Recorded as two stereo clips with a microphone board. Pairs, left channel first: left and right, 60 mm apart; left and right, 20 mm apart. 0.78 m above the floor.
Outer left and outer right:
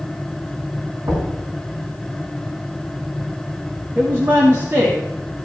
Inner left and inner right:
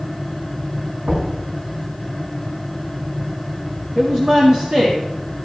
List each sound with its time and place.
1.1 s knocking: 70° right (ahead or behind), 5.5 m
4.0 s a woman speaking: 45° right (ahead or behind), 1.4 m